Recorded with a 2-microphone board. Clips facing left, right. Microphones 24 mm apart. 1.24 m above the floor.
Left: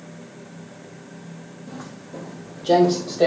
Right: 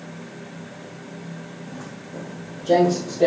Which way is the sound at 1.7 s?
45° left (ahead or behind).